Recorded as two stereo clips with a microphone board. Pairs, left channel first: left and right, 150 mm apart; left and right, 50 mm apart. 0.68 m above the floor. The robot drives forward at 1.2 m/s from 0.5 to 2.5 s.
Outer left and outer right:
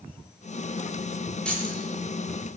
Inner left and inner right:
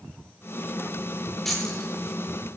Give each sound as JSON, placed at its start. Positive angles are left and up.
{"t": 1.4, "sound": "keys jangling", "side_deg": 5, "distance_m": 7.0}